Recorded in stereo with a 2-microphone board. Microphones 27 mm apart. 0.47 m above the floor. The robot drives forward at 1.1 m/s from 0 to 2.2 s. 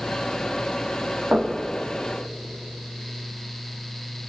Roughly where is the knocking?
Right.